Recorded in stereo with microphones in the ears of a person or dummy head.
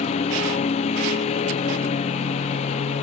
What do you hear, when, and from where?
0.0 s a lawn mower: 40° left (ahead or behind)